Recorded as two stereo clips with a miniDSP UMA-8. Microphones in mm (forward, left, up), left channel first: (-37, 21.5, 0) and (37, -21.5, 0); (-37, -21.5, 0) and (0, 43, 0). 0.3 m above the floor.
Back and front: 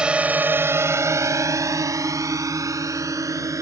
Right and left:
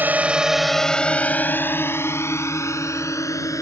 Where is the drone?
35° left; by 3.6 s 80° right.